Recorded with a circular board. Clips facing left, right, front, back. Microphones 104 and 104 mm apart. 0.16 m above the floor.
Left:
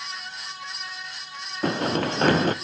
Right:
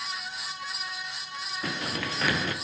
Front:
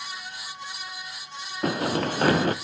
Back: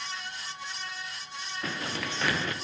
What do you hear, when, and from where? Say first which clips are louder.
1.6 s running footsteps: left 11 dB, front 11 dB; 45° left, 0.7 m